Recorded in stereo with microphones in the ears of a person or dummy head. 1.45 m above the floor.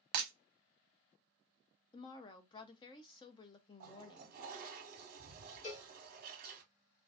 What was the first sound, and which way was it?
Breaking glass, 40° right (ahead or behind).